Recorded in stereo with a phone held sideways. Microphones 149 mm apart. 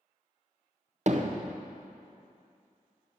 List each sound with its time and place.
1.1 s hammering: 50° right (ahead or behind), 0.6 m